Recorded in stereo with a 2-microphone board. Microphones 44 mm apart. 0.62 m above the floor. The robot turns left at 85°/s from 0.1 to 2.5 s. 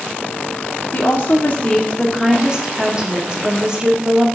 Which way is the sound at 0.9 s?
110° left.